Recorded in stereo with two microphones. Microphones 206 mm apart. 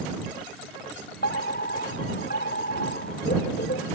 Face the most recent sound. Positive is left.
turn(degrees=50)  # may be behind; listen again after turning